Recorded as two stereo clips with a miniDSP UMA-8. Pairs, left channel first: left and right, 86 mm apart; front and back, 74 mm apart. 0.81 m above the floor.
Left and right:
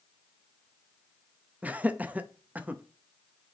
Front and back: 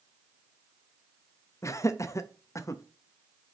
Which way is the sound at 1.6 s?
25° right.